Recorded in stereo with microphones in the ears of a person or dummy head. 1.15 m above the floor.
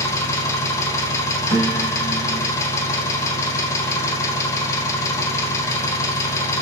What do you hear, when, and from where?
0.0 s an engine running: 15° left (ahead or behind), 0.8 m
1.5 s a piano: 35° right (ahead or behind), 3 m